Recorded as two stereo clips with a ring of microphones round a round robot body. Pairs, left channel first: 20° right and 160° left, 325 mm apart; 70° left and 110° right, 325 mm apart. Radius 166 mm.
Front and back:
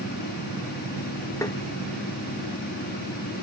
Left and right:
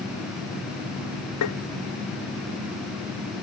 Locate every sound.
1.4 s tapping: 55° left